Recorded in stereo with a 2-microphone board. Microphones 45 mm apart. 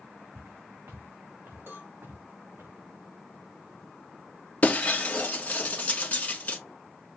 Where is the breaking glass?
30° left (ahead or behind), 1.3 m.